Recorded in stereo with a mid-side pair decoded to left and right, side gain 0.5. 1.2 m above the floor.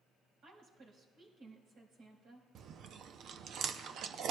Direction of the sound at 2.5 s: 60° right.